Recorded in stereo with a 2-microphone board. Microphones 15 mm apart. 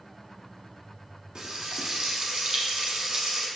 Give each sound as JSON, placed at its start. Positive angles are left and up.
{"t": 1.4, "sound": "frying", "side_deg": -60, "distance_m": 1.0}